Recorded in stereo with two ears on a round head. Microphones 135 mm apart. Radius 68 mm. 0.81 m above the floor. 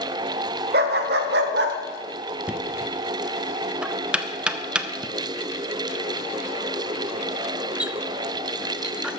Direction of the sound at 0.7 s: 75° right (ahead or behind).